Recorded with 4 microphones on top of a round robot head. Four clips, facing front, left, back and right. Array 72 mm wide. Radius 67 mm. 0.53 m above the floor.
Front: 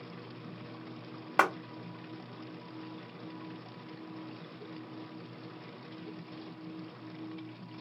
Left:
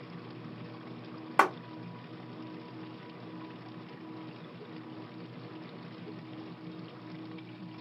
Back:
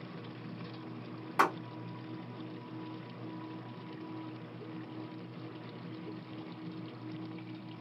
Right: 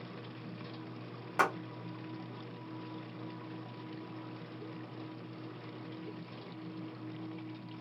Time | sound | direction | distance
1.4 | a clap | 35° left | 1.1 m